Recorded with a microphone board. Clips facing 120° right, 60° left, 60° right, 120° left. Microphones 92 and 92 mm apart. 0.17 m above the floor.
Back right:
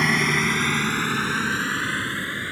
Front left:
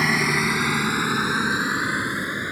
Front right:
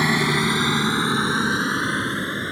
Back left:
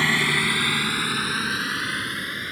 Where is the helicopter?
20° right; by 2.5 s 10° right.